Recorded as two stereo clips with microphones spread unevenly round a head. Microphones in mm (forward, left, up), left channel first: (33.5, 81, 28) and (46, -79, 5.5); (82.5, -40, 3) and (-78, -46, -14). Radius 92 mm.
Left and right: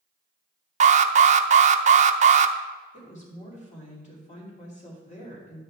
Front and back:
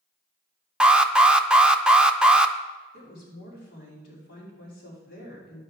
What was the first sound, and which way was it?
An alarm, 100° right.